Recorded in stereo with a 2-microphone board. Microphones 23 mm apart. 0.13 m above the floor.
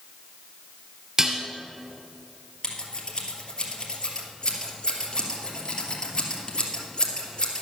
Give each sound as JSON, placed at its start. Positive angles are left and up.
{"t": 1.2, "sound": "dishes clattering", "side_deg": -25, "distance_m": 1.4}
{"t": 2.6, "sound": "scissors", "side_deg": 30, "distance_m": 2.5}